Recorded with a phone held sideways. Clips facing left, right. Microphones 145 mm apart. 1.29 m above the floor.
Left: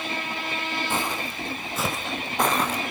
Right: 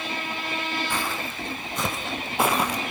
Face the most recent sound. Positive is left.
turn(degrees=-15)  # may be behind; listen again after turning